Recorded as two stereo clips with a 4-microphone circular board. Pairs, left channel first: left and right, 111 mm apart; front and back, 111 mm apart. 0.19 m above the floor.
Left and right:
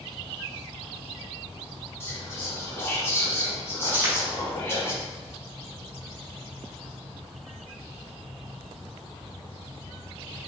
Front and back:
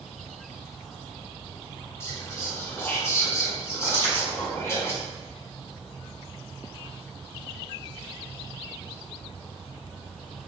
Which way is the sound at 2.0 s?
45° left.